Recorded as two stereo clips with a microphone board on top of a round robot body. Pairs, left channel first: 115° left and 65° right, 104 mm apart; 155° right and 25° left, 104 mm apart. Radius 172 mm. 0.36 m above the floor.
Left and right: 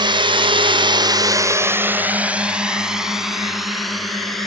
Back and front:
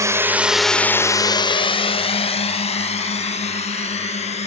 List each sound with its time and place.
0.0 s a drone: 35° right; by 4.5 s 160° right